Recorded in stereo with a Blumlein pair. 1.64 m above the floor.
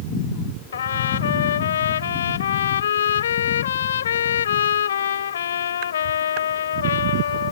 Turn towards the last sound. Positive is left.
turn(degrees=65)